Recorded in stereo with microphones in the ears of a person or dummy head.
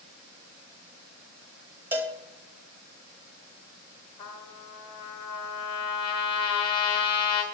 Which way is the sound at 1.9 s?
10° right (ahead or behind).